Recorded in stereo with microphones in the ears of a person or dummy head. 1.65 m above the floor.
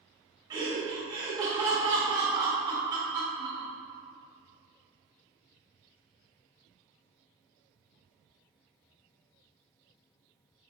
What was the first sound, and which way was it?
Laughter, 20° right (ahead or behind).